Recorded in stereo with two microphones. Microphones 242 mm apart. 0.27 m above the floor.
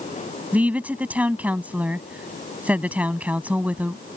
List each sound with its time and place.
0.5 s a woman speaking: 5° right (ahead or behind)